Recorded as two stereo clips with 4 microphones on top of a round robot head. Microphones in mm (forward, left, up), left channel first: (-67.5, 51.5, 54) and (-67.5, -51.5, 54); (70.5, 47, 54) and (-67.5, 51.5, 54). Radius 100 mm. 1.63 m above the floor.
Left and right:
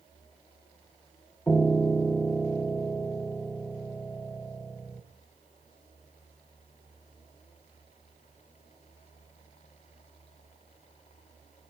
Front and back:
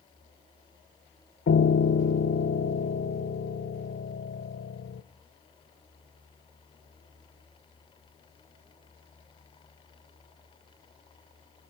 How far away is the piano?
About 0.5 m.